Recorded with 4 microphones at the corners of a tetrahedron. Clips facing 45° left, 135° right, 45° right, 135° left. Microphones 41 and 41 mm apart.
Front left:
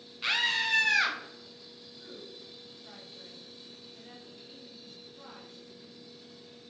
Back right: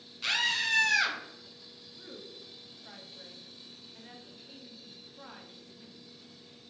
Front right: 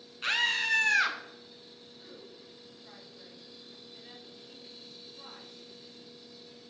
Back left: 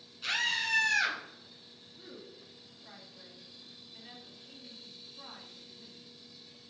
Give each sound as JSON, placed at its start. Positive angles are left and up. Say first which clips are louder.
{"t": 0.2, "sound": "a scream", "louder": "front left 1 dB, front right 3 dB", "azimuth_deg": -25, "distance_m": 1.7}
{"t": 2.0, "sound": "a woman speaking", "louder": "even, back left 2 dB", "azimuth_deg": -160, "distance_m": 1.4}